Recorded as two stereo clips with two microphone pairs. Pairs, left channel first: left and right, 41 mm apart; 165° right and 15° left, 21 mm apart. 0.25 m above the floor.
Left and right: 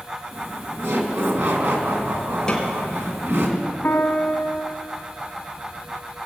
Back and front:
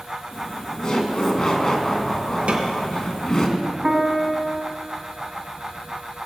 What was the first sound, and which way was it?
Laughter, 100° right.